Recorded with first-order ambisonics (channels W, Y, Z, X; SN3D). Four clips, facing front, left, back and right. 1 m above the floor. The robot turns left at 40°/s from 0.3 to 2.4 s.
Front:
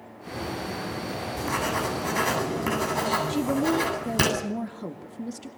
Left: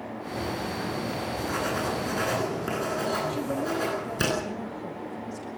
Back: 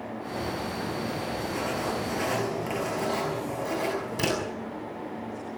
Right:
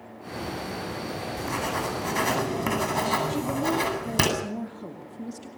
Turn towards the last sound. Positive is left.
turn(degrees=-15)